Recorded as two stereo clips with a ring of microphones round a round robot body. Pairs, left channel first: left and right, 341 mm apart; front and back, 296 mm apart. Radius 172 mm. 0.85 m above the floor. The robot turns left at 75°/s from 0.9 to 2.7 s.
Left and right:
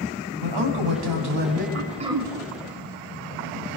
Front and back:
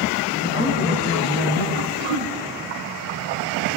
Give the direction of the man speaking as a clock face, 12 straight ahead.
3 o'clock.